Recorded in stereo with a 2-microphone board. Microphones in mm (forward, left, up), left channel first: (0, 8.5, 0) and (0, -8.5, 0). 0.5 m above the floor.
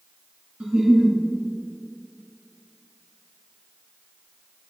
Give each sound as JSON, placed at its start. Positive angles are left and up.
{"t": 0.6, "sound": "a giggle", "side_deg": -85, "distance_m": 1.8}